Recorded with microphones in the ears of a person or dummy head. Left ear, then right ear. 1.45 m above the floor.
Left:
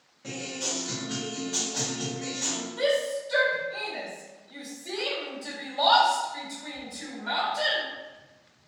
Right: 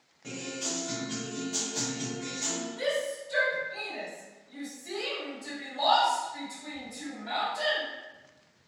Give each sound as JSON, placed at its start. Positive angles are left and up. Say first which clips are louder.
{"t": 0.2, "sound": "a guitar", "louder": "left 3 dB", "side_deg": 10, "distance_m": 0.9}
{"t": 2.8, "sound": "a shout", "louder": "left 6 dB", "side_deg": 15, "distance_m": 1.1}